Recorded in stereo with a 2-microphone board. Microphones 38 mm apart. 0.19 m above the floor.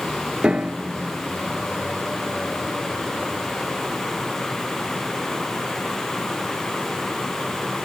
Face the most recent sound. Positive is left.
turn(degrees=-35)  # may be behind; listen again after turning